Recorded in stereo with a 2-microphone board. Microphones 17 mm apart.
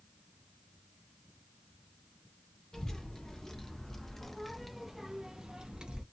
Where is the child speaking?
35° left (ahead or behind), 1.3 m; by 6.0 s 65° right (ahead or behind), 0.7 m.